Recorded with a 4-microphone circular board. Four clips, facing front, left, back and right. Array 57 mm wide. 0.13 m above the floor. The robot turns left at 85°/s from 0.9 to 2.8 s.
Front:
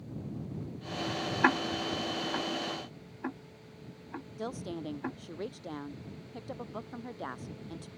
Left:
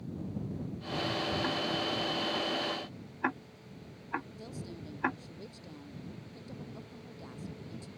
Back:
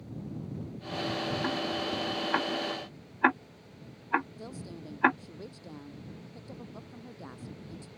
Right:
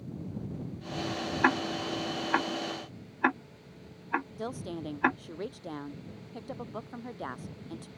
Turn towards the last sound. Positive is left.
turn(degrees=-55)